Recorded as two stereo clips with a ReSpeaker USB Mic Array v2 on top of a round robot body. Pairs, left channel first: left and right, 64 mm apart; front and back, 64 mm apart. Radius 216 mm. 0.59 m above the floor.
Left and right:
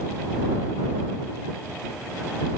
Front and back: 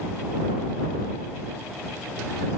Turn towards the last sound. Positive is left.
No sound to turn to.